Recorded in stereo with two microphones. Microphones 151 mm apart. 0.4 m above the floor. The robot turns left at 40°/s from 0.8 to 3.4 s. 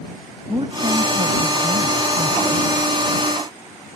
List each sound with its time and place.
0.5 s a woman speaking: 40° right; by 2.7 s 115° right